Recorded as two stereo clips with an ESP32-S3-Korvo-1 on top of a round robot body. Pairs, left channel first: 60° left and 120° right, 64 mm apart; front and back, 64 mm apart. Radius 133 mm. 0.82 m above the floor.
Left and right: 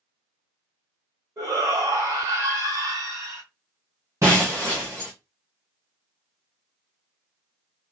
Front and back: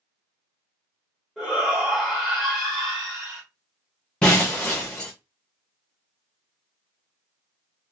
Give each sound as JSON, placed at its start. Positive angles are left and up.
{"t": 1.4, "sound": "a shout", "azimuth_deg": -105, "distance_m": 1.6}
{"t": 4.2, "sound": "breaking glass", "azimuth_deg": -70, "distance_m": 0.5}